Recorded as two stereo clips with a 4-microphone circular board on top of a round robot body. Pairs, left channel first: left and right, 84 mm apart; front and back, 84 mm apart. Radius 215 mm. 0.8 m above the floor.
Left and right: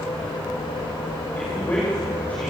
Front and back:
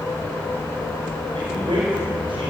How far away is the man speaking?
About 5 m.